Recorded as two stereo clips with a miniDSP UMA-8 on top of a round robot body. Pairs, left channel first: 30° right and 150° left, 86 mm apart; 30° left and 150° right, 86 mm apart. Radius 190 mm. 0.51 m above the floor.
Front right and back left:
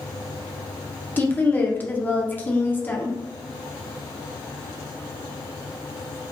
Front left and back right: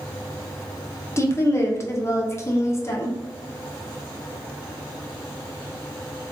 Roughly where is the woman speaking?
Ahead.